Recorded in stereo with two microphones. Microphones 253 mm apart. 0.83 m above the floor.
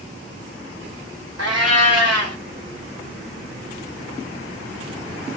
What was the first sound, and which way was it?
A cat meowing, 75° right (ahead or behind).